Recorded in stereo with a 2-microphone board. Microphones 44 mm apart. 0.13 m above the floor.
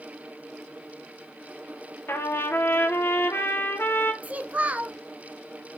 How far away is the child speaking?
About 0.8 m.